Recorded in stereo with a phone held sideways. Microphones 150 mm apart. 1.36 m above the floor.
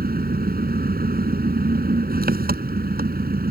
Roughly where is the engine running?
Right.